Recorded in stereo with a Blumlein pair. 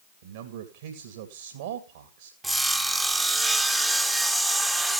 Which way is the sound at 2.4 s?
5° right.